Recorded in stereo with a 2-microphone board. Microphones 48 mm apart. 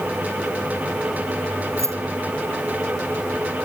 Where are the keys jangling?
80° right.